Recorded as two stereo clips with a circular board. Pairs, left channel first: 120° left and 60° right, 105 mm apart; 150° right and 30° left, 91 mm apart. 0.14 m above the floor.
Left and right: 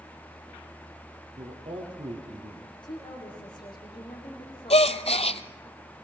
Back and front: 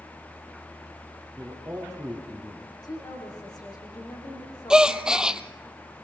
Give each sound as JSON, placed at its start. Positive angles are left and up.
{"t": 1.4, "sound": "a man speaking", "azimuth_deg": -45, "distance_m": 3.5}
{"t": 2.8, "sound": "a woman speaking", "azimuth_deg": 165, "distance_m": 7.5}
{"t": 4.7, "sound": "a gasp", "azimuth_deg": 110, "distance_m": 0.7}